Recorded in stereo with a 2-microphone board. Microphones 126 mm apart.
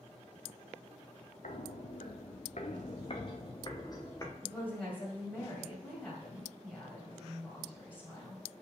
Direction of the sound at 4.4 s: 15° left (ahead or behind).